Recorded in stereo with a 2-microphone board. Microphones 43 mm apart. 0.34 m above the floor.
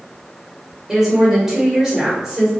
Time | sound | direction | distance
0.9 | a woman speaking | 10° right (ahead or behind) | 1.0 m